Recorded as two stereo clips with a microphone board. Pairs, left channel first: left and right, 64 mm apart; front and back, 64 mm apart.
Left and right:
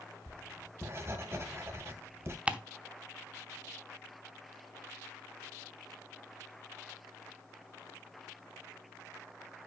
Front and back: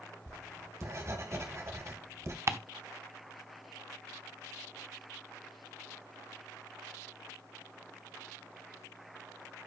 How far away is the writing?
About 2 m.